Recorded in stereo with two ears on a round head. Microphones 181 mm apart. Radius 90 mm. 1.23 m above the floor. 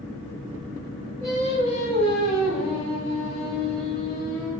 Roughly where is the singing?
Centre.